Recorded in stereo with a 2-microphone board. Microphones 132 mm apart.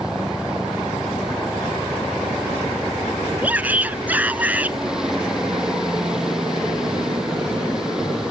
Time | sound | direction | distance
0.0 | a helicopter | 5° right (ahead or behind) | ?
3.4 | a shout | 10° right (ahead or behind) | ?